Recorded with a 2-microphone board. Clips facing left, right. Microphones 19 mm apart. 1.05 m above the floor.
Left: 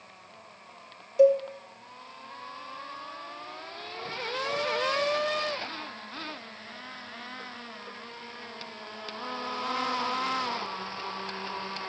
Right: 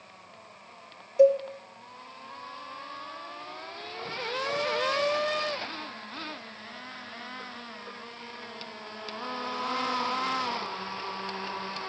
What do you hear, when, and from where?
1.2 s a cowbell: 15° left (ahead or behind), 2.5 m